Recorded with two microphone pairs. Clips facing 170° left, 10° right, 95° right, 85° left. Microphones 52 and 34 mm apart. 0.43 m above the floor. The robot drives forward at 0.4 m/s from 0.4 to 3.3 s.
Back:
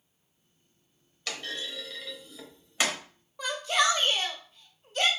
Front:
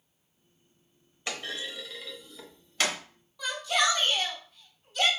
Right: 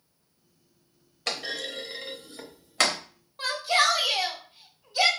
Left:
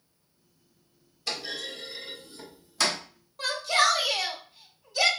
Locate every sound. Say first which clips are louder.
1.3 s a clunk: front 1 dB, right 2 dB; 75° right, 0.9 m; by 3.0 s 120° right, 1.0 m
3.4 s a shout: back 1 dB, even; 165° right, 1.7 m